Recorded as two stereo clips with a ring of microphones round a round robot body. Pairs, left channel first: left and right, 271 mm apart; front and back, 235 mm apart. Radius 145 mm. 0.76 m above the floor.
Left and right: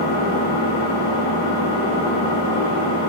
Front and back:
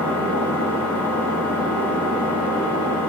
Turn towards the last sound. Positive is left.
turn(degrees=85)